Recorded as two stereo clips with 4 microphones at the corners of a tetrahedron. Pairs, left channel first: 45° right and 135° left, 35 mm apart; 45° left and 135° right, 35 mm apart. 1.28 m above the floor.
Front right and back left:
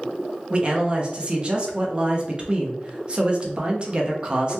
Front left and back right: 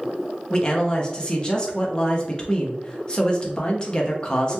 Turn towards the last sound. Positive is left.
turn(degrees=95)